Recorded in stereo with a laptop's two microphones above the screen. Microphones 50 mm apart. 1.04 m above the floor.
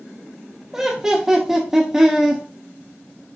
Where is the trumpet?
No trumpet in this recording.